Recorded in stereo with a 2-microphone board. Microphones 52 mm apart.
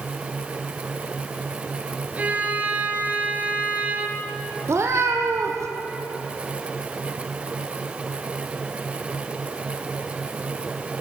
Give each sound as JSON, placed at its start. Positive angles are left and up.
{"t": 2.2, "sound": "a violin", "side_deg": -30, "distance_m": 2.0}
{"t": 4.7, "sound": "a cat meowing", "side_deg": -60, "distance_m": 3.5}